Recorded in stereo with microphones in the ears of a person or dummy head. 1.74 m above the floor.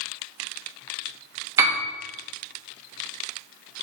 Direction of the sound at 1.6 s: 20° right (ahead or behind).